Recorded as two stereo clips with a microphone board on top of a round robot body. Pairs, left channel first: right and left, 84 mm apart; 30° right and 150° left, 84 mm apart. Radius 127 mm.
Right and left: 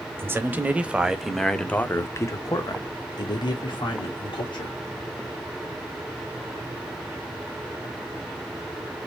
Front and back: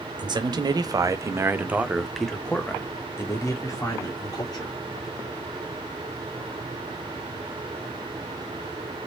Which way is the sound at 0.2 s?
150° left.